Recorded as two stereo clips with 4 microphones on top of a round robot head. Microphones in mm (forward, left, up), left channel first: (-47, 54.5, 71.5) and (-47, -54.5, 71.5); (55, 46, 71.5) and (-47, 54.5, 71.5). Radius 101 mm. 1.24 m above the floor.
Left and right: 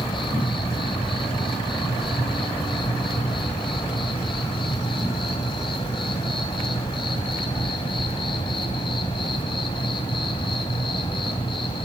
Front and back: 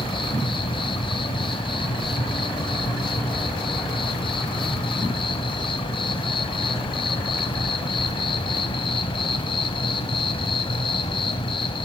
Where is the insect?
30° left, 2.5 m.